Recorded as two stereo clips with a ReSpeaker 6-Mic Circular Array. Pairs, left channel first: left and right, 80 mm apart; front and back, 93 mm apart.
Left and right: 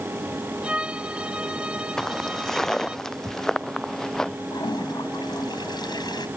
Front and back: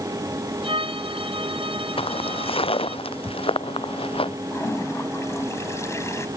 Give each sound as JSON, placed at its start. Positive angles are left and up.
{"t": 0.6, "sound": "a violin", "azimuth_deg": -170}
{"t": 2.0, "sound": "footsteps", "azimuth_deg": 5}
{"t": 4.5, "sound": "a toilet flushing", "azimuth_deg": 60}